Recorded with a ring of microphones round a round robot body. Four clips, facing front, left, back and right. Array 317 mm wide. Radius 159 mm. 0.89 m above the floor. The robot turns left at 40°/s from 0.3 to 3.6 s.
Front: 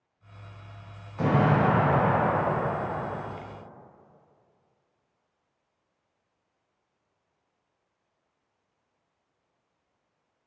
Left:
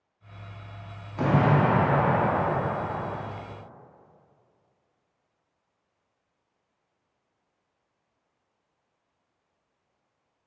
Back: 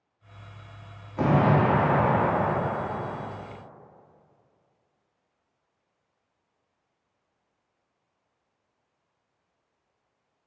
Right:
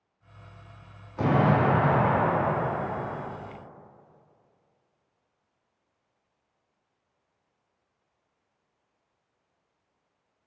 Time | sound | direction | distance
1.2 | an explosion | 170° left | 2 m